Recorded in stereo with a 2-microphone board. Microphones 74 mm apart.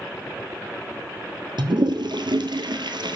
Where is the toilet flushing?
85° right, 1.4 m.